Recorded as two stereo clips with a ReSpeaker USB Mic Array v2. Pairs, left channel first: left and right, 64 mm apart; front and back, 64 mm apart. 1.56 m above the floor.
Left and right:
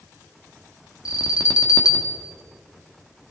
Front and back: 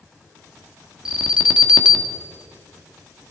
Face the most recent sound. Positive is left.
turn(degrees=105)